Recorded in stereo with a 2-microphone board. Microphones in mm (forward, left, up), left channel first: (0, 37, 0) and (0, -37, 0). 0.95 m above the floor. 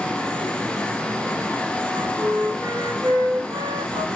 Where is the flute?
60° right (ahead or behind), 1.9 m.